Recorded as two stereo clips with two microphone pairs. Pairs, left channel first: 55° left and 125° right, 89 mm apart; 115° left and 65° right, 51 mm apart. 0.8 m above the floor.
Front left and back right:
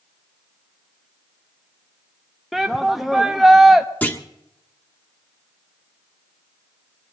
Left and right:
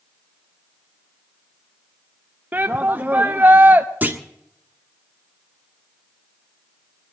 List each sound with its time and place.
2.5 s a shout: 40° right, 0.6 m
4.0 s a clunk: 15° right, 1.4 m